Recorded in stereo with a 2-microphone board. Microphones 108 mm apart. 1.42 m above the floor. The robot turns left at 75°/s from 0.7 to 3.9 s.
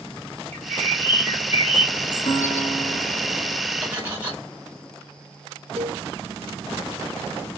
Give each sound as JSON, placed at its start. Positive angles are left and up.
{"t": 0.5, "sound": "a bird", "azimuth_deg": 155, "distance_m": 3.0}
{"t": 2.3, "sound": "a guitar", "azimuth_deg": 90, "distance_m": 1.5}
{"t": 3.8, "sound": "cutlery clinking", "side_deg": -10, "distance_m": 2.5}
{"t": 5.8, "sound": "a cowbell", "side_deg": -60, "distance_m": 1.2}